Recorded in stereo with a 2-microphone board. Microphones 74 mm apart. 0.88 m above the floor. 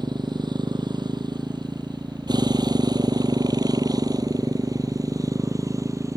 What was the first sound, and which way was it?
A motorcycle, 90° right.